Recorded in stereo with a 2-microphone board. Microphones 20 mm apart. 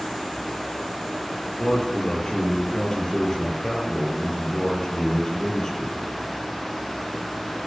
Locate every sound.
1.6 s a man speaking: 25° left (ahead or behind), 6 m